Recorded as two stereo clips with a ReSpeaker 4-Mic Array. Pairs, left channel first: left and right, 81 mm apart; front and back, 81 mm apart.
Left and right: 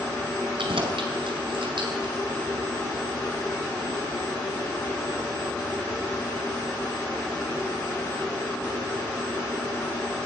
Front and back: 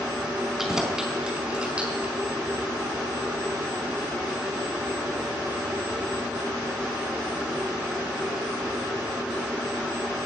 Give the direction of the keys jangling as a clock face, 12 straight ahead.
3 o'clock.